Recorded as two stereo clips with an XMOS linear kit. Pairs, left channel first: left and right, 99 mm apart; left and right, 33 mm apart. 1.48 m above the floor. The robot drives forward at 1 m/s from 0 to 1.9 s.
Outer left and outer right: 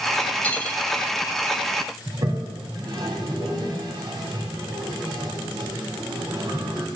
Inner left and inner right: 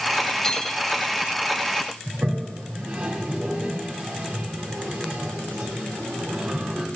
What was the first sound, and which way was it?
Cutlery clinking, 15° left (ahead or behind).